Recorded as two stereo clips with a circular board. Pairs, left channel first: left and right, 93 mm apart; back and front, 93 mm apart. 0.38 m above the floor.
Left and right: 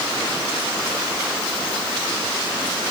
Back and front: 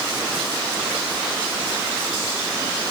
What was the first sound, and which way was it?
Only background noise.